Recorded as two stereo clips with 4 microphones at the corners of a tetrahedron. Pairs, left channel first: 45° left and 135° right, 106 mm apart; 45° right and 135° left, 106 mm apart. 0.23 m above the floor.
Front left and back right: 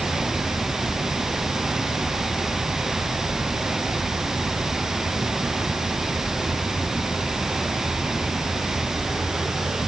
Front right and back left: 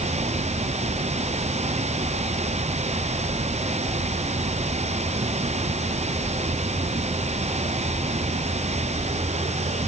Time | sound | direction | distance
0.0 | running water | 140° left | ?